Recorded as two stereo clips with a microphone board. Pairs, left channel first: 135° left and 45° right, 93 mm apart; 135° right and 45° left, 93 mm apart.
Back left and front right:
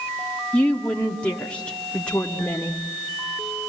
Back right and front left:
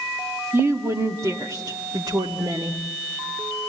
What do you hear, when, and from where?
0.5 s a woman speaking: 70° left, 1.2 m; by 2.8 s 60° left, 2.0 m